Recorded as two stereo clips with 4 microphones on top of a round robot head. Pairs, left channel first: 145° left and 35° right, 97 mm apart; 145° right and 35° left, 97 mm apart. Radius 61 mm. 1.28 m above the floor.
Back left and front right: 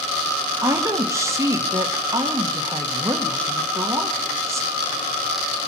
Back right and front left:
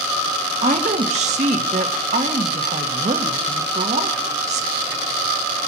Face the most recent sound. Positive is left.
turn(degrees=30)